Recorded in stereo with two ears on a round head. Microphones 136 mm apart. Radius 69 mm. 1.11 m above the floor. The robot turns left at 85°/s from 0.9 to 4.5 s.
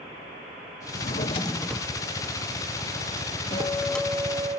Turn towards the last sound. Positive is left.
turn(degrees=-35)